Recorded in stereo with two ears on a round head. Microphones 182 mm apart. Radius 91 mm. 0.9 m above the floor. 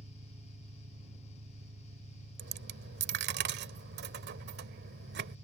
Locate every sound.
0.0 s an engine running: 35° right (ahead or behind)
2.4 s a dropped coin: 60° right (ahead or behind)